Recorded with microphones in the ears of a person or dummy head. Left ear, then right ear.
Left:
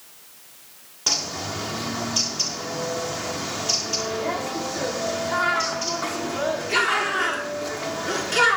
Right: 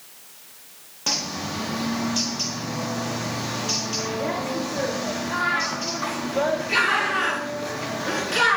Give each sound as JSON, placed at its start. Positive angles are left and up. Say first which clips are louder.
{"t": 1.1, "sound": "a bird", "louder": "left 1 dB", "side_deg": 5, "distance_m": 1.3}